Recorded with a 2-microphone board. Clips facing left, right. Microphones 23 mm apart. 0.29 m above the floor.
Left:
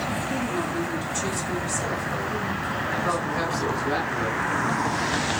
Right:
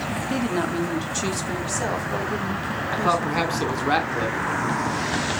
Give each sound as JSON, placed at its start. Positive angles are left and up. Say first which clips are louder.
{"t": 0.3, "sound": "a woman speaking", "louder": "right 2 dB", "side_deg": -45, "distance_m": 1.4}
{"t": 2.9, "sound": "a man speaking", "louder": "right 6 dB", "side_deg": -55, "distance_m": 2.5}